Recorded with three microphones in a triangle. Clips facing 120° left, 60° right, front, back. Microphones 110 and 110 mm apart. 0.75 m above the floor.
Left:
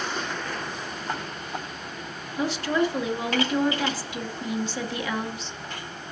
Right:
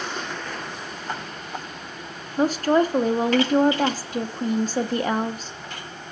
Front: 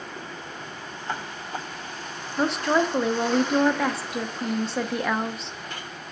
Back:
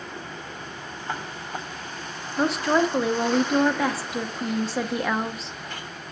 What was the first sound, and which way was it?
A woman speaking, 90° right.